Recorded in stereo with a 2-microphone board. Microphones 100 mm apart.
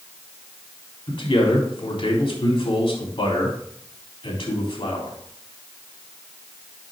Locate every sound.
1.1 s a man speaking: 50° left (ahead or behind), 3.5 m